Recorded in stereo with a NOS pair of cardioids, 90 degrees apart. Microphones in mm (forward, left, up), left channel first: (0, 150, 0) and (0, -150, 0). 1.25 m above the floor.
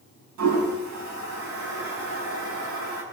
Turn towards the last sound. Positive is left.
turn(degrees=-70)